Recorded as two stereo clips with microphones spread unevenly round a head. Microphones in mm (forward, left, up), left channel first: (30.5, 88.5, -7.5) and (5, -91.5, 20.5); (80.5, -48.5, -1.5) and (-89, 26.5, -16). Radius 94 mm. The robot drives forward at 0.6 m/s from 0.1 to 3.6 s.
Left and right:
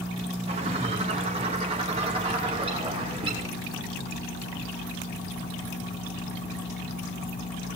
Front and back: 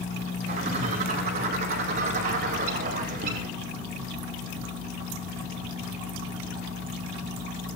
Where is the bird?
160° right, 4.5 m; by 3.5 s 165° right, 6.5 m.